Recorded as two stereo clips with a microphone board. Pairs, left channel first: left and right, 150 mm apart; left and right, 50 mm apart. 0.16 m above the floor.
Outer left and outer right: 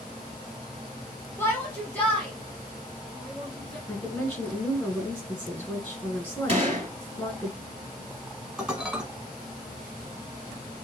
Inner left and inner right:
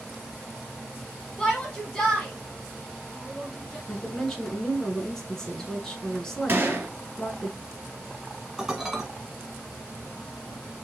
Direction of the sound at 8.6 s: 5° right (ahead or behind).